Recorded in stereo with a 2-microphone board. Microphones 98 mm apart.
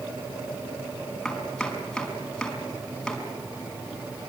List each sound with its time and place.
1.2 s chopping: 5° left (ahead or behind), 5 m